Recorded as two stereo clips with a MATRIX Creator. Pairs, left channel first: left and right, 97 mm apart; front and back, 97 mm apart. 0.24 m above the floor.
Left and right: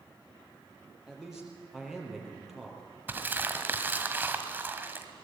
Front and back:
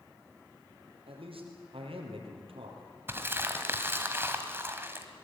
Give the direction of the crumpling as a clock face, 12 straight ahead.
5 o'clock.